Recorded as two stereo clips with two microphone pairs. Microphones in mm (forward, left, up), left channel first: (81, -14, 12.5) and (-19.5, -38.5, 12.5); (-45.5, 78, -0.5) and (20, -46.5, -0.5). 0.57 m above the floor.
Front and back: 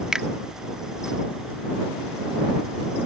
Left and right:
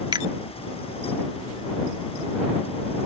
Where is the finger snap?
85° right.